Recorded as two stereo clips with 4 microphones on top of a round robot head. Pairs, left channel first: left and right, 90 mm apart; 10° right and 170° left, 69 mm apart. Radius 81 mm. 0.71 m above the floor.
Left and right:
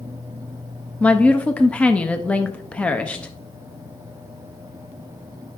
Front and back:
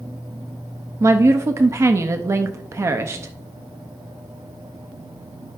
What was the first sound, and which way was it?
A woman speaking, 160° left.